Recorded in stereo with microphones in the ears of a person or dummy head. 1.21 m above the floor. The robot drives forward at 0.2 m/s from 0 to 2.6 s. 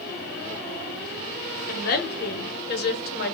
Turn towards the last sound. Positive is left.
turn(degrees=55)  # may be behind; listen again after turning